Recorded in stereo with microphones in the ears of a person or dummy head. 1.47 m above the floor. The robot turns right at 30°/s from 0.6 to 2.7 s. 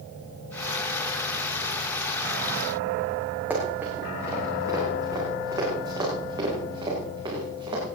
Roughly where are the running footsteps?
Centre.